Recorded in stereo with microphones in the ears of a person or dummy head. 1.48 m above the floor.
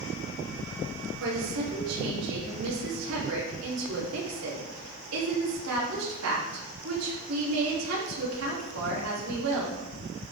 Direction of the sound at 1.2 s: 85° right.